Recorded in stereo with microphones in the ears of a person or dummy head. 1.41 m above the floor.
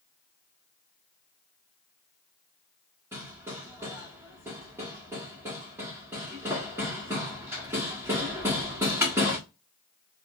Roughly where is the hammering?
Centre.